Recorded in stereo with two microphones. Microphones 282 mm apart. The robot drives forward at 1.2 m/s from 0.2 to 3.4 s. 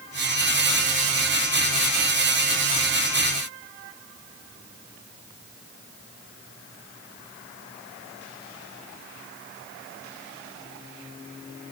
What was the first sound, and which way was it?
Only background noise.